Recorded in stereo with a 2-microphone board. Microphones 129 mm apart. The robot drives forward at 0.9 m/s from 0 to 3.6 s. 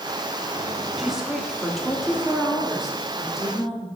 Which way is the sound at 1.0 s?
5° right (ahead or behind).